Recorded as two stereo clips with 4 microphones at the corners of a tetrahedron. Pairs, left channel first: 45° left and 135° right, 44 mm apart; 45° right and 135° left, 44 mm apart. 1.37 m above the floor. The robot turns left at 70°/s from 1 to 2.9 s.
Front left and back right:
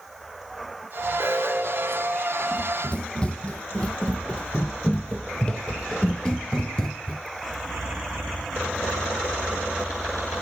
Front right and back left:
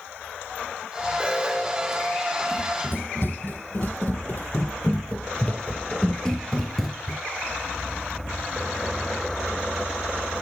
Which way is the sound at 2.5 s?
5° left.